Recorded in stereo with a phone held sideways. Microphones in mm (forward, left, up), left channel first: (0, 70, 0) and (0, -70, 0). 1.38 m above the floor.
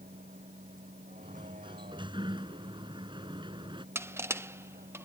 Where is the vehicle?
70° right (ahead or behind); by 5.0 s 75° right (ahead or behind).